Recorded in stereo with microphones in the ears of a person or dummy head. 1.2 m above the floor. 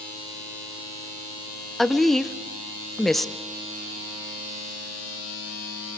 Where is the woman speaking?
5° right (ahead or behind), 0.7 m.